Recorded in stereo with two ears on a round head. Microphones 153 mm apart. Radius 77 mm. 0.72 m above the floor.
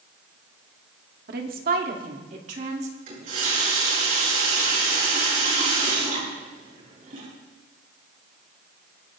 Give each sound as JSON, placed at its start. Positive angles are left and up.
{"t": 1.3, "sound": "a woman speaking", "side_deg": -55, "distance_m": 1.8}
{"t": 3.1, "sound": "a running tap", "side_deg": -50, "distance_m": 7.5}